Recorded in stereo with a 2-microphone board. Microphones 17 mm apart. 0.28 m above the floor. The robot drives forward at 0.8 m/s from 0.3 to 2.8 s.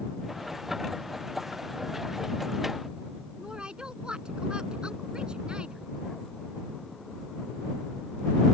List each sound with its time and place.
3.4 s a woman speaking: 70° right (ahead or behind)